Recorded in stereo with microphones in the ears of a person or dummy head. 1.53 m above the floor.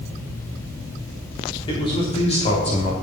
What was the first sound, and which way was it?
A man speaking, 30° left (ahead or behind).